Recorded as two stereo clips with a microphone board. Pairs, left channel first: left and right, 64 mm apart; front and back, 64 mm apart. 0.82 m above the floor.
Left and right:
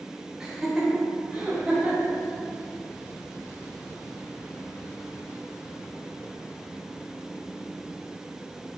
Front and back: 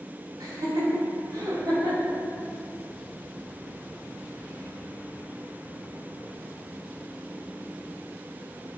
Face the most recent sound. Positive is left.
turn(degrees=-165)